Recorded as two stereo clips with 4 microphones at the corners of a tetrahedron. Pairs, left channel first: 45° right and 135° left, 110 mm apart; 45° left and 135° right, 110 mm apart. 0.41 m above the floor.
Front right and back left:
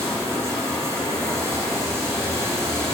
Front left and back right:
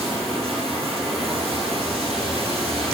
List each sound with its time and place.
0.0 s running water: 160° right, 2.5 m